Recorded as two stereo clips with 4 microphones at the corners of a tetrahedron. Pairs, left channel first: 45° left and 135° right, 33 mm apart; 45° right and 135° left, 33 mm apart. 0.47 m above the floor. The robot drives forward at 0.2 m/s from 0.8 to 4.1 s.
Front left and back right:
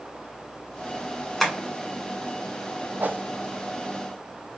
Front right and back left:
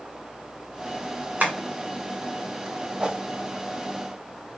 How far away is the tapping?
About 1.6 m.